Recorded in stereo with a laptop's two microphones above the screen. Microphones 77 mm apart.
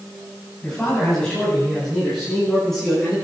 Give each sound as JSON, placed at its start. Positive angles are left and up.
{"t": 0.6, "sound": "a man speaking", "side_deg": 10, "distance_m": 8.0}